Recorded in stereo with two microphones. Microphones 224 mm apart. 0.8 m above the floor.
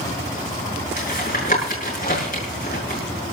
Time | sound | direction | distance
1.0 | tapping | 40° left (ahead or behind) | 6.5 m